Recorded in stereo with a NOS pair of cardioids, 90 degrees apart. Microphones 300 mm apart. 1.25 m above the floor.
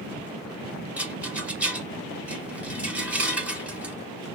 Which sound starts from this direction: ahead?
A rattle, at 1.0 s.